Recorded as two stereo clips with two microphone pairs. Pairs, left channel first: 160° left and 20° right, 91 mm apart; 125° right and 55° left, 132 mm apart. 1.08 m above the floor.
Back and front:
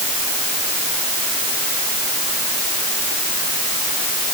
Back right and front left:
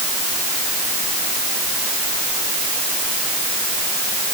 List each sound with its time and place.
Only background noise.